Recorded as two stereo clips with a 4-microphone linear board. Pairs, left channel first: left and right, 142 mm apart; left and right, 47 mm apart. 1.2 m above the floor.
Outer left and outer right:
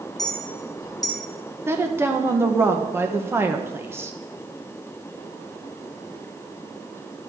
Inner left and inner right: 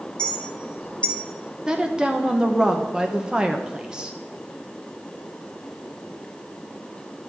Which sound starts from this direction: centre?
A woman speaking, at 1.7 s.